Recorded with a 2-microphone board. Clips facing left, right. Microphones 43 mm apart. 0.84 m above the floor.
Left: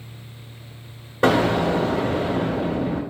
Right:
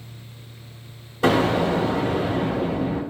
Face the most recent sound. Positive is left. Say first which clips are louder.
# left 1 dB
turn(degrees=60)  # may be behind; listen again after turning